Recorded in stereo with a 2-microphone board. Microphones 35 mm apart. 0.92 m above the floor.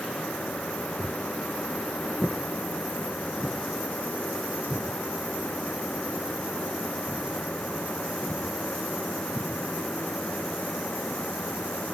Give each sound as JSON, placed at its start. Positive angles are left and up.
{"t": 1.0, "sound": "footsteps", "side_deg": -40, "distance_m": 2.0}